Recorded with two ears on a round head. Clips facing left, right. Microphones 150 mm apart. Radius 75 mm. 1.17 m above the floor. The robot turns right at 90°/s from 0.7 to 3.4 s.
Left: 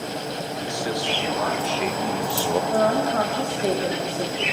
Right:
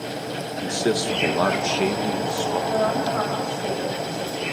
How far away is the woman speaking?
About 3.5 m.